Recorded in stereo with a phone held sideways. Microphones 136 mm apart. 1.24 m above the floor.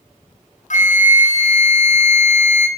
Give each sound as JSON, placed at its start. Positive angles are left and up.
{"t": 0.7, "sound": "a flute", "side_deg": 65, "distance_m": 0.6}